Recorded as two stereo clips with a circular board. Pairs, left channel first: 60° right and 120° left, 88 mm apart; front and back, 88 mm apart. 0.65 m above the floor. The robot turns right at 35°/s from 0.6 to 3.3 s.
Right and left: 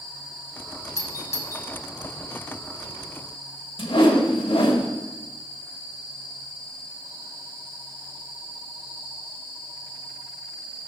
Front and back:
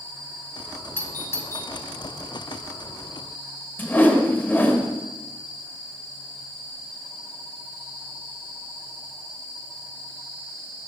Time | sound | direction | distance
1.0 | a doorbell | 55° right | 1.1 m
3.8 | a whoosh | 70° right | 1.3 m